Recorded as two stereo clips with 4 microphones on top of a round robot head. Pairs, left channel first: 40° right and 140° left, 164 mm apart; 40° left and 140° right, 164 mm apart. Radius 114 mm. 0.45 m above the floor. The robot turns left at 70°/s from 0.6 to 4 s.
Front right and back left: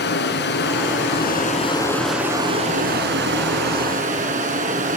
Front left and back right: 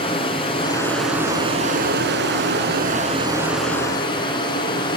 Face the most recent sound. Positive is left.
turn(degrees=100)